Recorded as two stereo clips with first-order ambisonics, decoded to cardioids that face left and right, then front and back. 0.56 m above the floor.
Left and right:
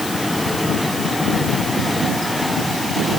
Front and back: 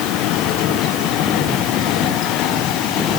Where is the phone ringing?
I don't hear a phone ringing.